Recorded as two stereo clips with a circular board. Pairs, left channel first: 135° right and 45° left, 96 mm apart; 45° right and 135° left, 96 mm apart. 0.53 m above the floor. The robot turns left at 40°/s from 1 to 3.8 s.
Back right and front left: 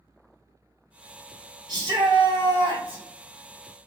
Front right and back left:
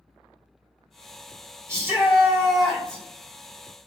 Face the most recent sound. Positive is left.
turn(degrees=-5)